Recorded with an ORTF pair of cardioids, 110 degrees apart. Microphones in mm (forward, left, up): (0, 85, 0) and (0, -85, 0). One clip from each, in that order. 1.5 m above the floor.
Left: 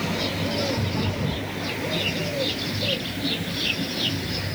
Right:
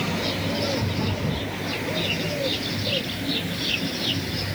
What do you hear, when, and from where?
Only background noise.